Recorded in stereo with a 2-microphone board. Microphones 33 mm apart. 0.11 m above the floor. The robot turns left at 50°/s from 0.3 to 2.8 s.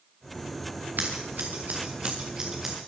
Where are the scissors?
75° right (ahead or behind), 3 m; by 2.8 s 10° right (ahead or behind), 3 m.